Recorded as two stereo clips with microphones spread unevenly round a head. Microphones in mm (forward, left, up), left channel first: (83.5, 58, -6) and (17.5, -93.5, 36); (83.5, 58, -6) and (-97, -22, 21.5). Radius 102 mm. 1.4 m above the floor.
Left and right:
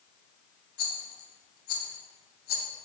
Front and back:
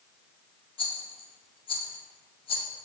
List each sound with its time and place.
0.8 s a rattle: 85° left, 0.5 m